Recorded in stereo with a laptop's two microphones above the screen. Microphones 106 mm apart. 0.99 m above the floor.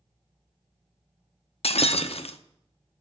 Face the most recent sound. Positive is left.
turn(degrees=70)  # may be behind; listen again after turning